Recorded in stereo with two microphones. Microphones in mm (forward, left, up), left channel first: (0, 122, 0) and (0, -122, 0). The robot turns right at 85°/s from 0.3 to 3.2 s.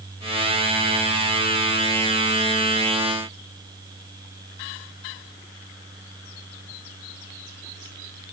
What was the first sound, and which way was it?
Only background noise.